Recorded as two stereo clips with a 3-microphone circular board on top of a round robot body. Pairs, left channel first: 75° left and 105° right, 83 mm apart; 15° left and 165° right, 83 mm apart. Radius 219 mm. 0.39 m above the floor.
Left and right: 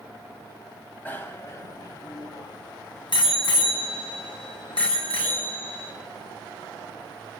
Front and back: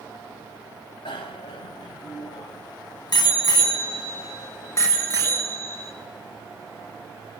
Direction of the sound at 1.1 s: 5° left.